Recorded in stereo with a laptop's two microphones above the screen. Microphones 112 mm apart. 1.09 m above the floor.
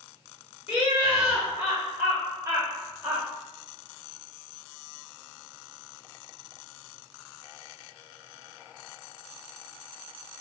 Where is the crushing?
I don't hear crushing.